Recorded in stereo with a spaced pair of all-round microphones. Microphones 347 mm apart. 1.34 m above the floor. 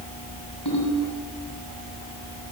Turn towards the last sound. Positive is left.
turn(degrees=85)